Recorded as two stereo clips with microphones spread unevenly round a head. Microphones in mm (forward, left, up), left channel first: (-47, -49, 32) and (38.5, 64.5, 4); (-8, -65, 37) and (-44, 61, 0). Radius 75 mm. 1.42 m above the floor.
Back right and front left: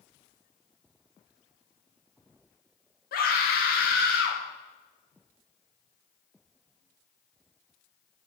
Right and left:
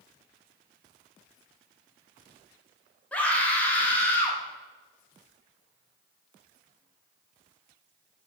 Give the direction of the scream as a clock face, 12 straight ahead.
5 o'clock.